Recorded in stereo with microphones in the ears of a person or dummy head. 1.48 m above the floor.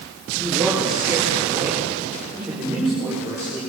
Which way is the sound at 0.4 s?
Centre (ahead or behind).